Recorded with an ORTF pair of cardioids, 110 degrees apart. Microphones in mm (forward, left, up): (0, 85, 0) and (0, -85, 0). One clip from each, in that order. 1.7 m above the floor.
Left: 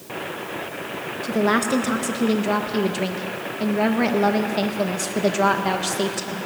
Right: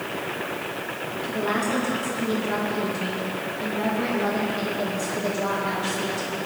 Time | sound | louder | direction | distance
1.2 | a woman speaking | left 5 dB | 60° left | 1.8 m